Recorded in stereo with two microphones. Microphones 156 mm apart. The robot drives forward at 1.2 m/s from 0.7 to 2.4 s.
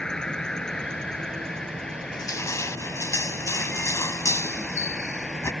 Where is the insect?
5° left (ahead or behind).